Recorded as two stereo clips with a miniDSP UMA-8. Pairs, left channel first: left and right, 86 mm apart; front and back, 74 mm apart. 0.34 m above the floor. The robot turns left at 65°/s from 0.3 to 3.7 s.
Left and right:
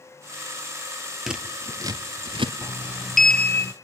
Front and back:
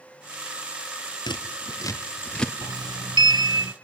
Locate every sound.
1.3 s scissors: 5° right, 1.7 m; by 2.5 s 85° right, 1.7 m
2.6 s a sliding door: 145° right, 0.5 m; by 3.7 s 145° left, 0.5 m